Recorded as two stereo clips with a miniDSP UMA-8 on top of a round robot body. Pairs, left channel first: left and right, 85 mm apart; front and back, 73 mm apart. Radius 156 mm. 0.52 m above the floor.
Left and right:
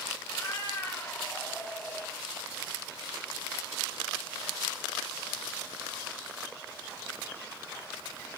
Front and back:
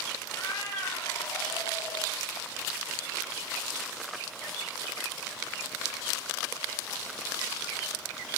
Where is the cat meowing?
40° left, 2.5 m; by 2.2 s 10° left, 1.0 m.